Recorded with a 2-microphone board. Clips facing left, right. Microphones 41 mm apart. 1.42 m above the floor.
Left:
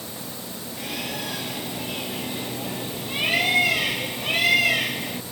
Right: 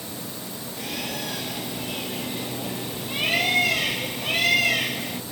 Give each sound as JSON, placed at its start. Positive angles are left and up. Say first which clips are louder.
{"t": 0.8, "sound": "a bird", "louder": "even", "side_deg": 10}